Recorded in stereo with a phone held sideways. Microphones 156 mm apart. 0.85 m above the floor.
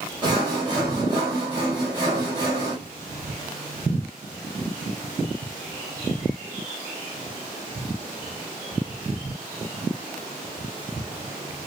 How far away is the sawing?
About 1.6 m.